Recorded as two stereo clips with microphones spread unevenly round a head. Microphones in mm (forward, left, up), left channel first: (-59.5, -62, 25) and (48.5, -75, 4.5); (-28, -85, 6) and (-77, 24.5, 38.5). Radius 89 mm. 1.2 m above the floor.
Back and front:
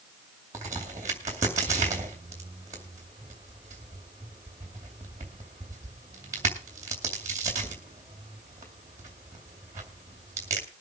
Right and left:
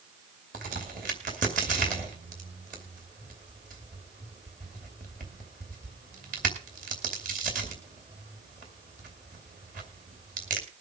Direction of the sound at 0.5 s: 65° left.